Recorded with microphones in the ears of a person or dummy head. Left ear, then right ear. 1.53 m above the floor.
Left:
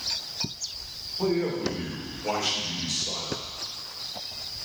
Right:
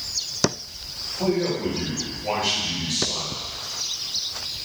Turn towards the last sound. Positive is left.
turn(degrees=80)